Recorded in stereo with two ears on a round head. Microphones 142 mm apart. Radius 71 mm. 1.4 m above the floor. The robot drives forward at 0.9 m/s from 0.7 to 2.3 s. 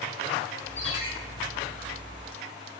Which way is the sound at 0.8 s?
40° left (ahead or behind).